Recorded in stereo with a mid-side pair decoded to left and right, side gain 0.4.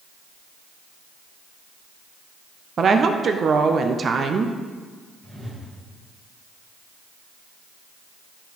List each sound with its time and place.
2.8 s a woman speaking: 50° right, 0.5 m
5.2 s a whoosh: 30° right, 1.9 m